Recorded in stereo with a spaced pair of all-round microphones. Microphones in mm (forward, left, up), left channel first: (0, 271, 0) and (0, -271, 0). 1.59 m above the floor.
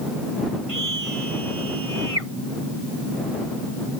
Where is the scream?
75° right (ahead or behind).